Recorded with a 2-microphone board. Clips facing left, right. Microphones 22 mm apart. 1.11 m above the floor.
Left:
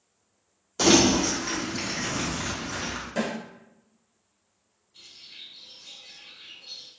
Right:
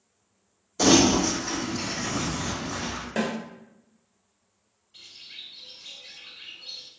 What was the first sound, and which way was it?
Crumpling, 30° left (ahead or behind).